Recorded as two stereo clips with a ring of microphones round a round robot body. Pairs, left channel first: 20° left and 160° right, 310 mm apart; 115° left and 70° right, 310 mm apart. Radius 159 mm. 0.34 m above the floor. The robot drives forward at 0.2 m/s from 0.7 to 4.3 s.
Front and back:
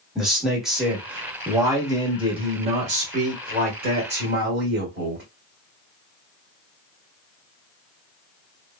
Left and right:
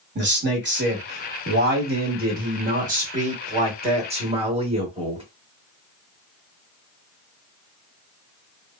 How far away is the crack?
No crack in this recording.